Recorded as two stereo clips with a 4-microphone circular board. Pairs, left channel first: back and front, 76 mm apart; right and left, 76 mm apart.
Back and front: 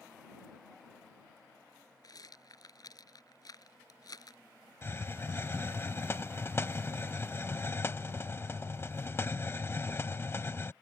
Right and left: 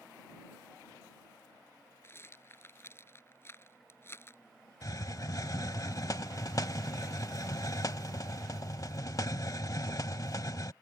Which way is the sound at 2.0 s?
150° right.